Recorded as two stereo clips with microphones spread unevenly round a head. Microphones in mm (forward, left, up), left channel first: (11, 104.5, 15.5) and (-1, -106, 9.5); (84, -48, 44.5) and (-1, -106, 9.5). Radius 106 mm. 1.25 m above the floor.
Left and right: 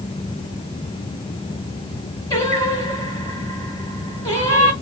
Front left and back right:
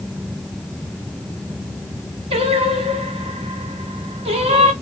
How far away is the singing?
About 3.5 m.